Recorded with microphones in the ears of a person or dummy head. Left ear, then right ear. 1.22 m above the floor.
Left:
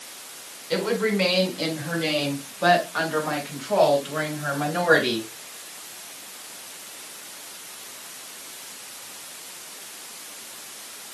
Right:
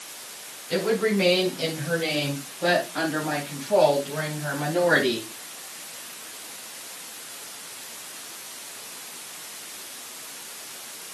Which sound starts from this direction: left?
A woman speaking, at 0.7 s.